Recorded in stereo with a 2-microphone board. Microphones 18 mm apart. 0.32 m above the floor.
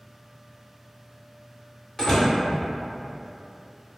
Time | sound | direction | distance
2.0 | a door slam | 20° left (ahead or behind) | 0.9 m